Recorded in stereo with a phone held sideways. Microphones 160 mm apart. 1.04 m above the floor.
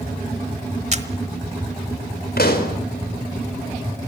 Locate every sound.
0.9 s a camera shutter: 45° right (ahead or behind), 1.2 m
2.4 s a pop: 65° left (ahead or behind), 3.5 m